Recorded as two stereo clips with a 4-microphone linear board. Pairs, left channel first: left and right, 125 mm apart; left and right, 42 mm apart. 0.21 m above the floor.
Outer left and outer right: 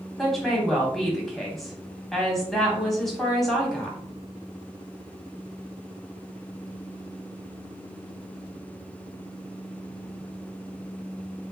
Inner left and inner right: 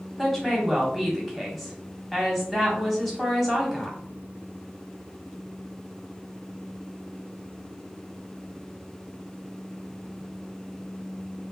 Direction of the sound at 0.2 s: Centre (ahead or behind).